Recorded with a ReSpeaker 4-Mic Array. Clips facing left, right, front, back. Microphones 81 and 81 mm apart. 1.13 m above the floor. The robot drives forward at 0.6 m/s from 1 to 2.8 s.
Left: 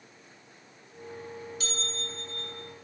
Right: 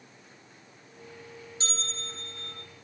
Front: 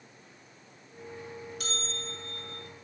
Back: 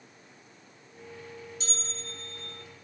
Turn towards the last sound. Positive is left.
turn(degrees=-40)